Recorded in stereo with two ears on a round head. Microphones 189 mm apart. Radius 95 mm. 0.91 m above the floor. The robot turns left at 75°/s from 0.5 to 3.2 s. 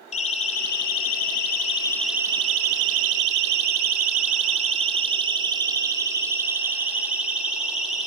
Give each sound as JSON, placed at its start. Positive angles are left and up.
{"t": 0.1, "sound": "a siren", "side_deg": 35, "distance_m": 4.5}